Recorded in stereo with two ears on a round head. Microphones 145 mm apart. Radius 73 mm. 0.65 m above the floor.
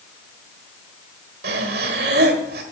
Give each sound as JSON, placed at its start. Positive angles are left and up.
{"t": 1.4, "sound": "breathing", "side_deg": -65, "distance_m": 1.8}